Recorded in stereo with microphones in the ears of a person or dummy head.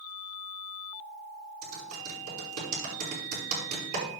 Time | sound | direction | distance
1.6 | typing on a keyboard | 45° right (ahead or behind) | 5.5 m